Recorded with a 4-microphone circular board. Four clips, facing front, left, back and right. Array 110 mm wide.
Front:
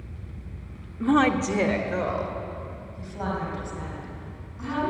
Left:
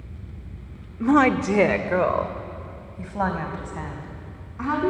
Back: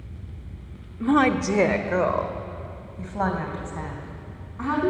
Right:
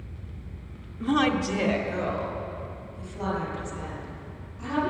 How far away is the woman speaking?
About 0.9 m.